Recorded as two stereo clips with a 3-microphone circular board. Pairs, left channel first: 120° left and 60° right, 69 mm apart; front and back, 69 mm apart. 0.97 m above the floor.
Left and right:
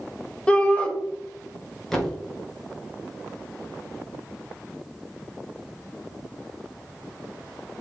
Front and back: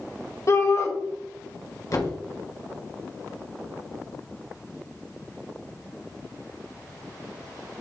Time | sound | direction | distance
0.5 | a shout | 50° left | 1.1 m
1.9 | a thud | 35° left | 1.4 m